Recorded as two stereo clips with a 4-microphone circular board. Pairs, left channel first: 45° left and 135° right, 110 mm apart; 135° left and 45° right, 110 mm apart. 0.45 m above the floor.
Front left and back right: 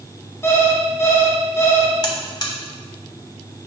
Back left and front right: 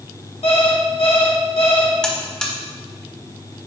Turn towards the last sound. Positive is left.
turn(degrees=55)